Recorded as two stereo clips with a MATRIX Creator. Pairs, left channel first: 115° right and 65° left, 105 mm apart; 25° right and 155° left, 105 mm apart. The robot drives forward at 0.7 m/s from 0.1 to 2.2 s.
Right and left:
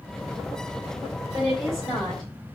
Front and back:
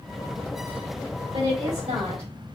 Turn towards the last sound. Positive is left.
turn(degrees=160)